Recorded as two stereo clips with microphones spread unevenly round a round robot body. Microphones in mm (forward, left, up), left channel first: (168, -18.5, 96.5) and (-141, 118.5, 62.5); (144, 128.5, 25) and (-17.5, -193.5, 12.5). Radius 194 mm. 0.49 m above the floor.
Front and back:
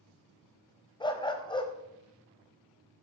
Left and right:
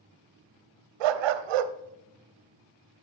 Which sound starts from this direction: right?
A dog barking, at 1.0 s.